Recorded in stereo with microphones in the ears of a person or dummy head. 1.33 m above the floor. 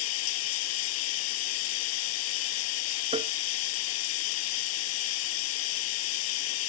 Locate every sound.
0.0 s running water: 75° left (ahead or behind)
3.1 s tapping: 30° right (ahead or behind)